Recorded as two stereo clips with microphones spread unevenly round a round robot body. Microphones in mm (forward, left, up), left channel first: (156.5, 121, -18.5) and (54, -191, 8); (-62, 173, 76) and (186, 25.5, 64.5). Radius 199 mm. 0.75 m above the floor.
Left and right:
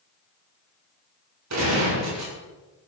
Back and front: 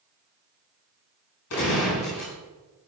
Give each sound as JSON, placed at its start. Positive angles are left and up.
{"t": 1.5, "sound": "a gunshot", "azimuth_deg": -165, "distance_m": 6.0}